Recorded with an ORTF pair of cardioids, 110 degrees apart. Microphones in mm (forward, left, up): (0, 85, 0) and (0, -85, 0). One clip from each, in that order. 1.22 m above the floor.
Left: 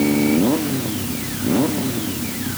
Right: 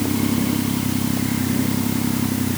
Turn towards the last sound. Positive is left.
No sound to turn to.